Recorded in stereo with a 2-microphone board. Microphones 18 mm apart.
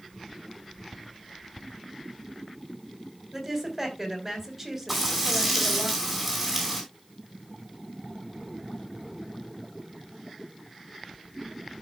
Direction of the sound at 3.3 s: 15° right (ahead or behind).